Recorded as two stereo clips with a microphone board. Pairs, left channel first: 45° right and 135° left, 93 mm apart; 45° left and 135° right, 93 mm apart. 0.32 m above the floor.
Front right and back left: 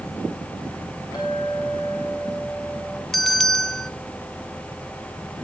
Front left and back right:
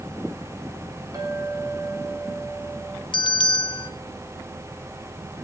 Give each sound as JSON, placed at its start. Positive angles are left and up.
{"t": 1.1, "sound": "a clink", "azimuth_deg": -85, "distance_m": 8.5}
{"t": 3.1, "sound": "a bell", "azimuth_deg": 40, "distance_m": 1.4}